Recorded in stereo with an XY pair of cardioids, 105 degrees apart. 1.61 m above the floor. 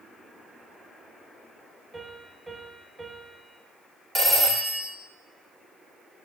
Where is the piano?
25° right, 2.5 m.